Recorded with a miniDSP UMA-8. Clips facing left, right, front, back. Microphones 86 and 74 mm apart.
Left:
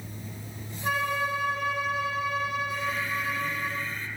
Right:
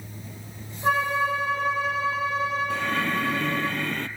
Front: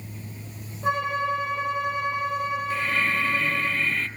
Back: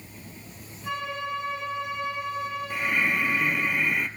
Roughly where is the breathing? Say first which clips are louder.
Right 5 dB, back 2 dB; right.